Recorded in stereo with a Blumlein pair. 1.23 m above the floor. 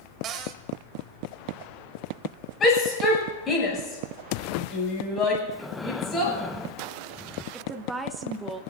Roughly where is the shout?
Ahead.